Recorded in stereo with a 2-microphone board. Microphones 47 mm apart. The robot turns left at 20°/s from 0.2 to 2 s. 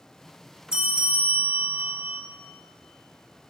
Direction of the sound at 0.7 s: 15° right (ahead or behind).